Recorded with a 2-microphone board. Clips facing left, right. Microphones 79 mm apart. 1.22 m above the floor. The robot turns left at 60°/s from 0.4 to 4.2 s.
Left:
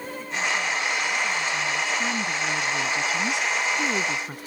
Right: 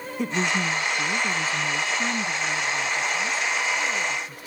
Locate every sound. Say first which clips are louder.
0.2 s a woman speaking: right 3 dB; 75° right; by 4.4 s 55° left